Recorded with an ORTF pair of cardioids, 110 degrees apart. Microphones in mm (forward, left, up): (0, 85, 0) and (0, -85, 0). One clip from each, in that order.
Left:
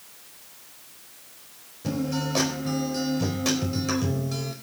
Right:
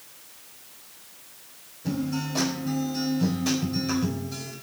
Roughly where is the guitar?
Ahead left.